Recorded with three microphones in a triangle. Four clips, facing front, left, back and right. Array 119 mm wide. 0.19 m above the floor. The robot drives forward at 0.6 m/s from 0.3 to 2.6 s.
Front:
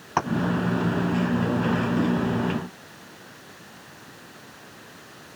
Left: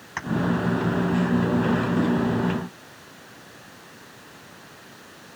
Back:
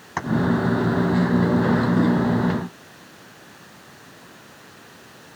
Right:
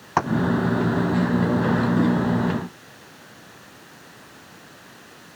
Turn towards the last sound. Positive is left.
turn(degrees=-75)